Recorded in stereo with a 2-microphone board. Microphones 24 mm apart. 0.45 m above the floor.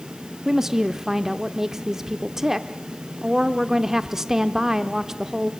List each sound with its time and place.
0.5 s a woman speaking: 25° right (ahead or behind), 0.7 m